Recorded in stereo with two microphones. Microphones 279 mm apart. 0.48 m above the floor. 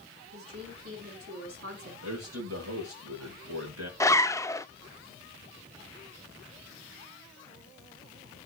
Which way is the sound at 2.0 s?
60° right (ahead or behind).